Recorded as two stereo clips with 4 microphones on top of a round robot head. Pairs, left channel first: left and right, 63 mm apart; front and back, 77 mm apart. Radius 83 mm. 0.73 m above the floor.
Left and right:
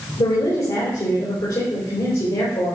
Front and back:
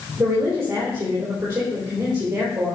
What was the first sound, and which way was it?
A woman speaking, 115° left.